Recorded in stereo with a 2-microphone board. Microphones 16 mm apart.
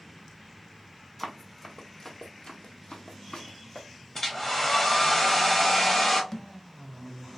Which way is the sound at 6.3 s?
30° left (ahead or behind).